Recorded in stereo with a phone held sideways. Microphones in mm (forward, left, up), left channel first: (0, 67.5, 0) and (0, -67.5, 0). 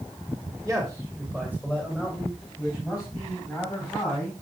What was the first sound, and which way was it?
A man speaking, 5° right (ahead or behind).